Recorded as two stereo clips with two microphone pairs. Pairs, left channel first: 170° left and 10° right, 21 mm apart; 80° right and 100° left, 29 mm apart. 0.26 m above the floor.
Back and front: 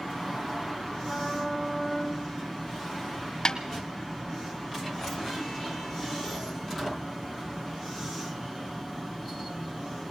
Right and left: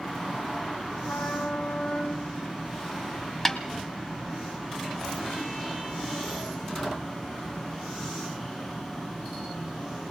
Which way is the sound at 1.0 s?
80° right.